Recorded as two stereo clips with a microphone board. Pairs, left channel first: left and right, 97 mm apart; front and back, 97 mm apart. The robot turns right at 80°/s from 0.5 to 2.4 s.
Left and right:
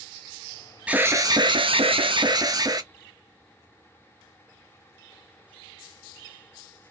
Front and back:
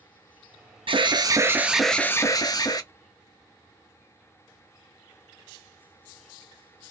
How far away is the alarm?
About 0.9 m.